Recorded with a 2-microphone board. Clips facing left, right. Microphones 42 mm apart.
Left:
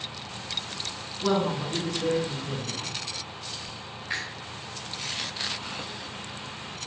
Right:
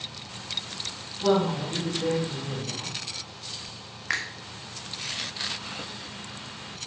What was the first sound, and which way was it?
A woman speaking, 30° right (ahead or behind).